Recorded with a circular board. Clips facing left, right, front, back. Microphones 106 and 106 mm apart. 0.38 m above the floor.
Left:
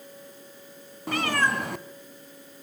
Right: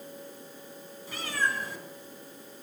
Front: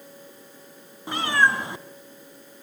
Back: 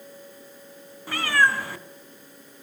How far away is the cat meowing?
About 1.7 m.